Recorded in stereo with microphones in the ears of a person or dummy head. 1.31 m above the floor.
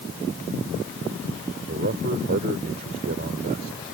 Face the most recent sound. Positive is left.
turn(degrees=-45)  # may be behind; listen again after turning